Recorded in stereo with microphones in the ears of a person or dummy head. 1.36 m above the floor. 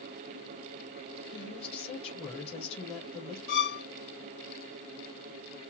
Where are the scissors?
No scissors in this recording.